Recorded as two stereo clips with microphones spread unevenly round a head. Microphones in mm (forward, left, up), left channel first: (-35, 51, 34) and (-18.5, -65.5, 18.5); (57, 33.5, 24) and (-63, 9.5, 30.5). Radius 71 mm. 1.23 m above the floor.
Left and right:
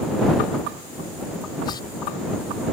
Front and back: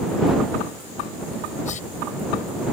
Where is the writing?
35° left.